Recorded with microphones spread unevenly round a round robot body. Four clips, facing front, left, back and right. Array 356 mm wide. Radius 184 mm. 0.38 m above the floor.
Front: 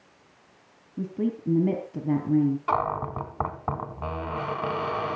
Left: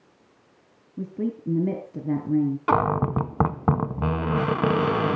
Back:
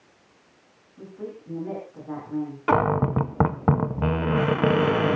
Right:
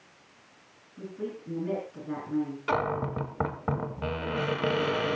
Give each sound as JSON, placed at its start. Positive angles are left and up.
{"t": 1.0, "sound": "a woman speaking", "azimuth_deg": 45, "distance_m": 3.0}
{"t": 2.7, "sound": "a cupboard door", "azimuth_deg": 140, "distance_m": 0.8}